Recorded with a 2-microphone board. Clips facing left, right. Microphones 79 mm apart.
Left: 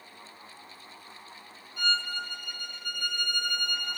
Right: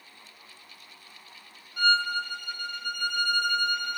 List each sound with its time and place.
1.8 s a violin: 60° right (ahead or behind), 1.2 m